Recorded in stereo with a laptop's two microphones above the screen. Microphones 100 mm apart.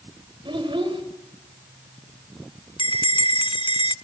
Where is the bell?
55° left (ahead or behind), 0.7 m.